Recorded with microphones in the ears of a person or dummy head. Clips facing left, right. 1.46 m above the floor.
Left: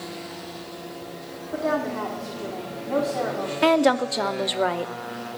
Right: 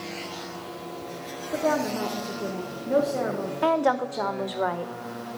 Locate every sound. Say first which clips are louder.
1.5 s a woman speaking: even; 20° right (ahead or behind), 1.4 m
3.6 s a woman speaking: left 4 dB; 30° left (ahead or behind), 0.6 m